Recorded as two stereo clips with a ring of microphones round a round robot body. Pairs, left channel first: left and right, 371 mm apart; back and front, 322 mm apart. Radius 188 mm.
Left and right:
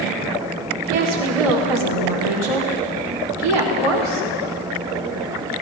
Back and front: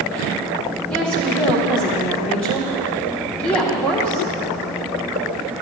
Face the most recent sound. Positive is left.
turn(degrees=-95)